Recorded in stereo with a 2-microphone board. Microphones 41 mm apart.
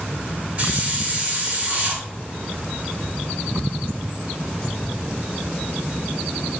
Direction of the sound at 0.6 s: 30° right (ahead or behind).